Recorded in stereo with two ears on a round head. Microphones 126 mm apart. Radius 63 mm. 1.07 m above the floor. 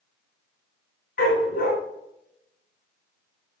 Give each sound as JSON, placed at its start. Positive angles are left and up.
{"t": 1.2, "sound": "a dog barking", "side_deg": 65, "distance_m": 3.0}